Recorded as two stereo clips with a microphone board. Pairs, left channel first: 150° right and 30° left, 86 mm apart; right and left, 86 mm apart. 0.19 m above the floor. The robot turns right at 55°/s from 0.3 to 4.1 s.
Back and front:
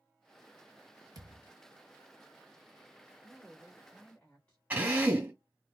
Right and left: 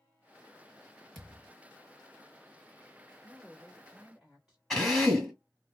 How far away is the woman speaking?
About 1.5 m.